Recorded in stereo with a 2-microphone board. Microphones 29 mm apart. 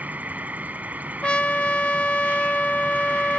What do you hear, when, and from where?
0.0 s an insect: 65° right (ahead or behind)
1.2 s a trumpet: 40° left (ahead or behind)